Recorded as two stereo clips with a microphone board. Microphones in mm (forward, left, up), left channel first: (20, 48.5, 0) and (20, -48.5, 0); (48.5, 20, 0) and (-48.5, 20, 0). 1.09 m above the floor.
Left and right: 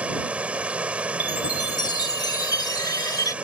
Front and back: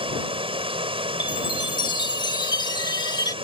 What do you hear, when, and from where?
0.0 s running water: 170° right
1.2 s a chime: 40° left